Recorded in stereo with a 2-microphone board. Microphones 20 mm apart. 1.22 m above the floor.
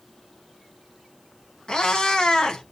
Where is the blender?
I don't hear a blender.